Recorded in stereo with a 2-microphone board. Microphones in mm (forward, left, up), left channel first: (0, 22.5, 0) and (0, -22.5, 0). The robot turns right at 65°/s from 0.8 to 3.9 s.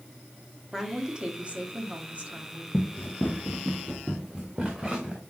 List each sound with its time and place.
0.7 s a woman speaking: 165° right, 1.4 m; by 2.6 s 45° right, 1.4 m
2.7 s running footsteps: 60° left (ahead or behind), 1.2 m; by 5.2 s 10° right (ahead or behind), 2.5 m